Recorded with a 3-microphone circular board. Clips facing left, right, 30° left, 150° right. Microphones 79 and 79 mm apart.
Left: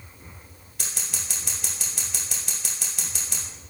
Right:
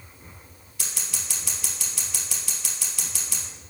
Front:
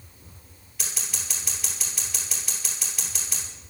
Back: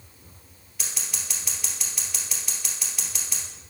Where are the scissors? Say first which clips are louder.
Left 1 dB, front 1 dB; 120° left, 2.5 m.